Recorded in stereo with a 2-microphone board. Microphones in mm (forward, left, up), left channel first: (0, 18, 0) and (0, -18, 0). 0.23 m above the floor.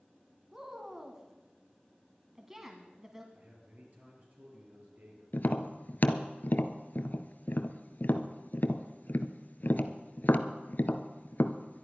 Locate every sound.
0.5 s a woman speaking: 15° right (ahead or behind), 1.5 m
3.3 s a man speaking: 50° right (ahead or behind), 5 m
5.3 s tapping: 60° left (ahead or behind), 0.8 m